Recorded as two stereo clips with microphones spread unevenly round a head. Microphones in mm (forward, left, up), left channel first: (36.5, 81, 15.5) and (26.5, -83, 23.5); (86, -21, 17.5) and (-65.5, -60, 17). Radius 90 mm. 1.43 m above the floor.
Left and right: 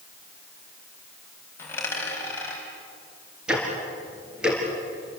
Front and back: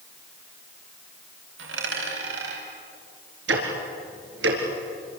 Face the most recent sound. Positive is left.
turn(degrees=180)